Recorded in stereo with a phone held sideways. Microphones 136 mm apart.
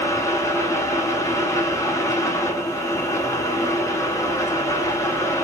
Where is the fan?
20° left (ahead or behind), 0.8 m.